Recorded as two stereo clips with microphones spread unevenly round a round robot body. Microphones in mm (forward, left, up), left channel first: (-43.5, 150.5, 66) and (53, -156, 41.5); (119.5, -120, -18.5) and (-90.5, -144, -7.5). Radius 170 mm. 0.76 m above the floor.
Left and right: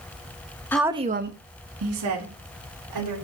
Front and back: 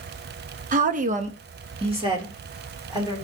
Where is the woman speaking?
170° right, 0.8 m; by 3.1 s 105° right, 3.5 m.